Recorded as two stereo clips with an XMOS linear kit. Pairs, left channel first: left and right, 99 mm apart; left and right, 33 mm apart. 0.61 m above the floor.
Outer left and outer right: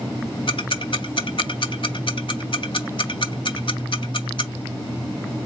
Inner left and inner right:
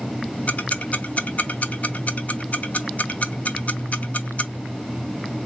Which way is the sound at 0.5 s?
60° left (ahead or behind).